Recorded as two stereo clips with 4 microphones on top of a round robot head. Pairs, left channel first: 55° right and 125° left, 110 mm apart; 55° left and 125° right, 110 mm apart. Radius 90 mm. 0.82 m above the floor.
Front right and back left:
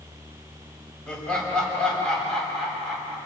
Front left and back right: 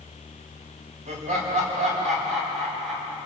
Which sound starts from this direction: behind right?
Laughter, at 1.1 s.